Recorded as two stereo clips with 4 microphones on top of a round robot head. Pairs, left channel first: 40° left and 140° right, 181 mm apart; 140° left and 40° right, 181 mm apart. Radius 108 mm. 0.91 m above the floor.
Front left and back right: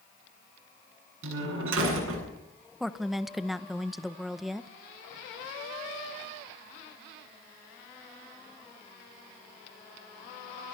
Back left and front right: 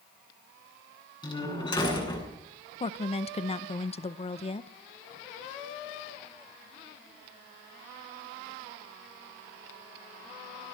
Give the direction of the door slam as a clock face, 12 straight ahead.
5 o'clock.